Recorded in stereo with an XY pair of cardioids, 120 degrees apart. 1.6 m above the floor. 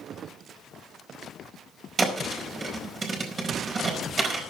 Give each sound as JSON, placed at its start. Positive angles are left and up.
{"t": 2.0, "sound": "a thud", "azimuth_deg": -30, "distance_m": 4.5}